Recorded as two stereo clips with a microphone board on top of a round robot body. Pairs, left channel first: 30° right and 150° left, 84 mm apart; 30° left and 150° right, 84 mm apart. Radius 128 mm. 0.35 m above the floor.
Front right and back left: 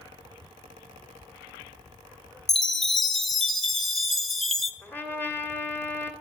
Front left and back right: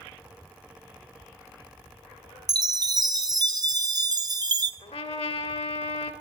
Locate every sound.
2.5 s a chime: 115° right, 1.5 m
4.8 s a trumpet: 40° left, 1.8 m